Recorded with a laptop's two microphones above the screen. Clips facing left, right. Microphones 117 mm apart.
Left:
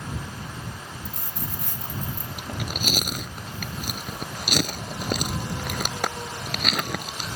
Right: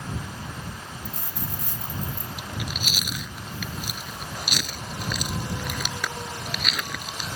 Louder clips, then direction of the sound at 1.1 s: Right 1 dB; 75° left (ahead or behind).